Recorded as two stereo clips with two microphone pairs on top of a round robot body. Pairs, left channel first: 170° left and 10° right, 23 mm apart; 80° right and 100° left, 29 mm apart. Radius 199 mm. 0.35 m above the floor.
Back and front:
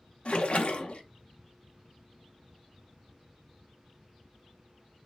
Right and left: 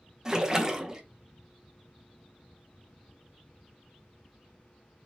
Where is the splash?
175° left, 1.1 m.